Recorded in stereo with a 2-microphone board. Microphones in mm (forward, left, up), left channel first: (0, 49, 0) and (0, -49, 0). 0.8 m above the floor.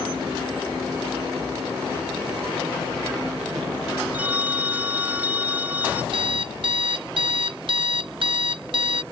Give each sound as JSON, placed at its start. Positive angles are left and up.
{"t": 4.1, "sound": "a phone ringing", "side_deg": -15}
{"t": 6.1, "sound": "an alarm clock", "side_deg": -60}